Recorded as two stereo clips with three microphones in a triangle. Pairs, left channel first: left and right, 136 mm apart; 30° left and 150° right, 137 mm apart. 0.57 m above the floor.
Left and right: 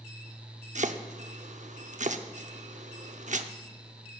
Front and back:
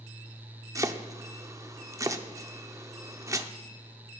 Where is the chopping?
85° right, 0.7 m.